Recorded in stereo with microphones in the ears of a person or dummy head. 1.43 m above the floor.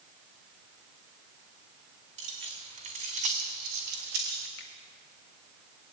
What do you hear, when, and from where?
2.2 s keys jangling: 35° right (ahead or behind), 1.8 m; by 4.5 s 45° right (ahead or behind), 0.9 m
4.6 s a finger snap: 70° left (ahead or behind), 1.9 m